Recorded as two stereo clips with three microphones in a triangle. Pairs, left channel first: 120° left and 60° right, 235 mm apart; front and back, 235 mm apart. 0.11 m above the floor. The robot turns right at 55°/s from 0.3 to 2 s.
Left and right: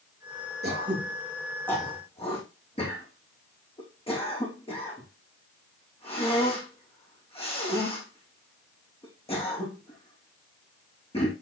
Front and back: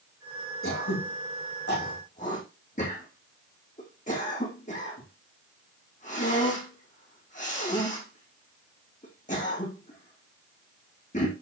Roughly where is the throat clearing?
Ahead.